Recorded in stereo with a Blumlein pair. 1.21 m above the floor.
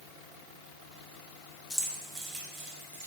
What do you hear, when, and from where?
1.7 s keys jangling: 10° left, 0.8 m; by 3.1 s 50° right, 1.5 m